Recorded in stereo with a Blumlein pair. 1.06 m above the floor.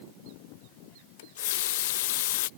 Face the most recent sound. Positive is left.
turn(degrees=55)